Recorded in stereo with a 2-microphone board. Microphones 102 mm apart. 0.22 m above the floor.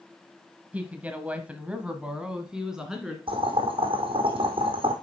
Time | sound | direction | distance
0.7 | a woman speaking | 15° right (ahead or behind) | 1.1 m
3.3 | boiling | 60° right (ahead or behind) | 2 m